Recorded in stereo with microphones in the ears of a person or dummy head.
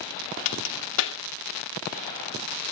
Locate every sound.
0.5 s a crack: 75° left (ahead or behind), 2 m